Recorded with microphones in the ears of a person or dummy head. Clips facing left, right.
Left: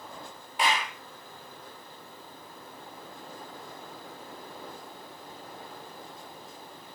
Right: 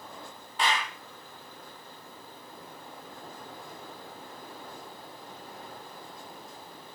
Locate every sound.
0.6 s a clap: 15° left (ahead or behind), 1.4 m